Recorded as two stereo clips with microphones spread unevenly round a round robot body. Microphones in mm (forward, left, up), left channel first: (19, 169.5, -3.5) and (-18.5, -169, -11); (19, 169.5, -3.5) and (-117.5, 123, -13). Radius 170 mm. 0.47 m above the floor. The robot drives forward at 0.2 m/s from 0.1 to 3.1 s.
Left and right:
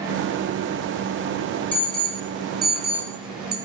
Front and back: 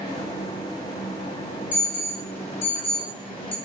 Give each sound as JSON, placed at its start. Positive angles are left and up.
{"t": 1.7, "sound": "an alarm", "azimuth_deg": -5, "distance_m": 0.8}